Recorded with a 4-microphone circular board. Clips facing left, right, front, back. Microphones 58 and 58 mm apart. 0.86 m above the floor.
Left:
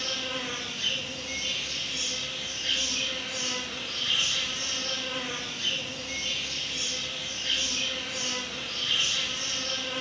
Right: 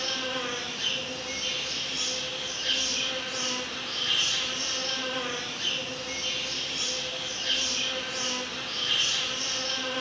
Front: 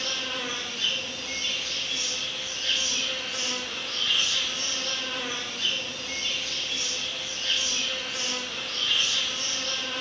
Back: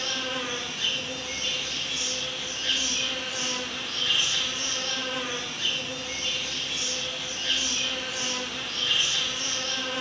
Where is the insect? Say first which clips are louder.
Right 2 dB, back 1 dB; 110° right, 4.5 m.